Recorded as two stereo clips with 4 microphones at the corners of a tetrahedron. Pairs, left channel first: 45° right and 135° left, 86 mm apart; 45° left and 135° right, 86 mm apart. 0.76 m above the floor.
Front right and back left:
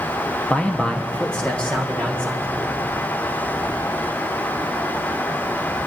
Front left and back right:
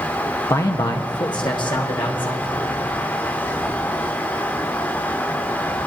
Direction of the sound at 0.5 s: 20° left.